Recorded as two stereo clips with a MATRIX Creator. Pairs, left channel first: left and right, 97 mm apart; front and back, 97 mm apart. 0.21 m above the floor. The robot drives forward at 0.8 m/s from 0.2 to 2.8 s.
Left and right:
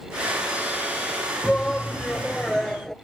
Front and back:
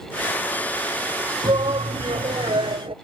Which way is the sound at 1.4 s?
170° left.